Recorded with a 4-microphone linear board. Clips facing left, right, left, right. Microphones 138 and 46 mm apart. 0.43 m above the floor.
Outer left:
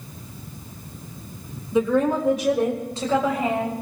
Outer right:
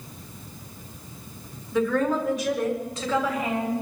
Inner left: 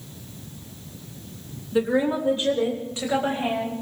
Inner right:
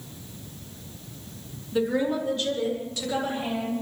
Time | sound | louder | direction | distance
1.7 | a woman speaking | outer left 3 dB, inner left 3 dB | 20° left (ahead or behind) | 1.4 m